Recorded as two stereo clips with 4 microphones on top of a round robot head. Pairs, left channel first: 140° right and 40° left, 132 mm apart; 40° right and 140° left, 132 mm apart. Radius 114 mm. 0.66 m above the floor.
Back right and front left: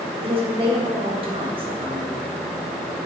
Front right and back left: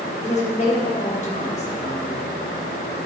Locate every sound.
0.2 s a woman speaking: 10° right, 3.5 m